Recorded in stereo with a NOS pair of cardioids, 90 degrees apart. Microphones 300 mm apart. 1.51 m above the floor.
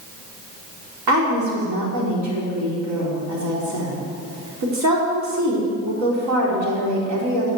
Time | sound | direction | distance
1.1 | a woman speaking | 60° right | 4 m